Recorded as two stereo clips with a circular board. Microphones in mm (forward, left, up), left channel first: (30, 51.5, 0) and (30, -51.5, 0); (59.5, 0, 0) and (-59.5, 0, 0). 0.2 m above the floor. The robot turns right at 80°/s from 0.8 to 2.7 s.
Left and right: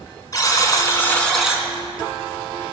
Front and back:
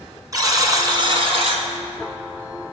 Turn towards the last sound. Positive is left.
turn(degrees=-75)